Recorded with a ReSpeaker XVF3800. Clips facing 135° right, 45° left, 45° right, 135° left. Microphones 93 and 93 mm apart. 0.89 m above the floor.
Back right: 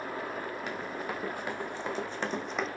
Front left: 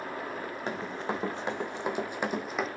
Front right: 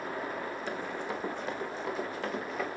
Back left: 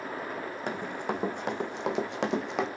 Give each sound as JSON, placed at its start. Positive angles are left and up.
{"t": 0.7, "sound": "running footsteps", "azimuth_deg": 105, "distance_m": 3.0}